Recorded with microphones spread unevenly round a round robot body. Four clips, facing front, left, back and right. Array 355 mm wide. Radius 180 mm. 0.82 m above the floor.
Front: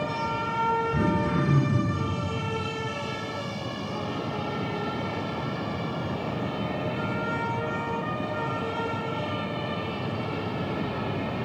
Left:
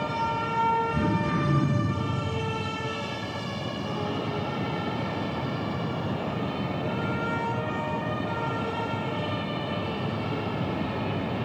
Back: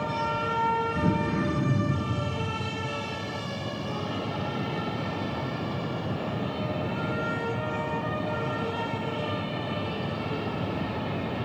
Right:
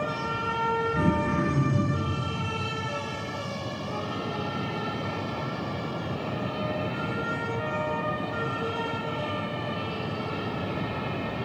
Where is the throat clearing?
5° left, 4.5 m.